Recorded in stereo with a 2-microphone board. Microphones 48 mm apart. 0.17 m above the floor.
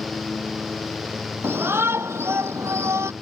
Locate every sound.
1.4 s a shout: 55° right (ahead or behind); by 3.1 s 75° right (ahead or behind)